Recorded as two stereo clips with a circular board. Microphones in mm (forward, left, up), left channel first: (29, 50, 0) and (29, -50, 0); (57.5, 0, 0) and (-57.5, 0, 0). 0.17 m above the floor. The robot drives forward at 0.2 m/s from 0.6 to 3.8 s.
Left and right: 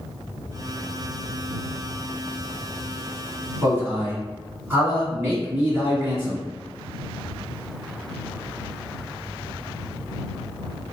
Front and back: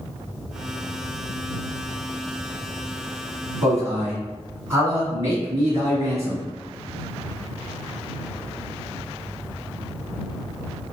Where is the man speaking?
135° right, 1.3 m.